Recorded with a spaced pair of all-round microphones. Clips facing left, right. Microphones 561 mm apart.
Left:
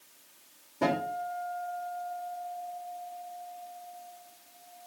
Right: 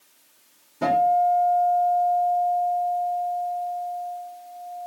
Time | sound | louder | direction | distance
0.8 | a guitar | right 8 dB | 5° right (ahead or behind) | 6 m